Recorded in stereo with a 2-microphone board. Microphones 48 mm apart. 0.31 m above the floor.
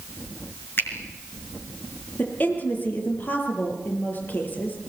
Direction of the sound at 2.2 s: 35° left (ahead or behind).